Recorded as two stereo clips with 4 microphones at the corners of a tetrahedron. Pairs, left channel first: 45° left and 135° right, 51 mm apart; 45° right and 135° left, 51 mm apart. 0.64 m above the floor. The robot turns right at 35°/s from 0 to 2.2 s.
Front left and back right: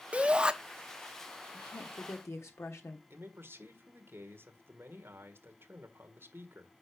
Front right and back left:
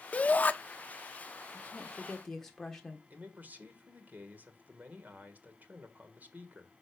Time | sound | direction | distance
0.1 | a shout | 85° right | 0.8 m
1.5 | a woman speaking | 15° left | 1.3 m
3.1 | a man speaking | 170° right | 1.7 m